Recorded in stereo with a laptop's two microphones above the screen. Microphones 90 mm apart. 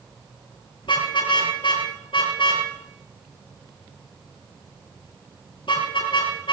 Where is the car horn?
70° left (ahead or behind), 10 m.